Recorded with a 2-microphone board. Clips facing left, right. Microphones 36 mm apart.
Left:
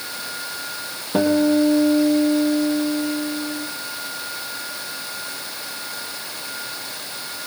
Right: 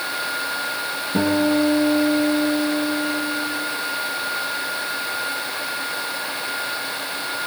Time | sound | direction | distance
1.1 | a guitar | 50° left (ahead or behind) | 4.5 m